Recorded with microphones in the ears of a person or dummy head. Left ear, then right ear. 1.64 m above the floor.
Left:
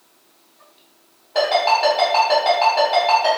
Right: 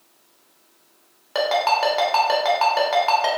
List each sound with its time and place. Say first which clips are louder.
1.4 s a ringtone: left 3 dB; 55° right (ahead or behind), 0.8 m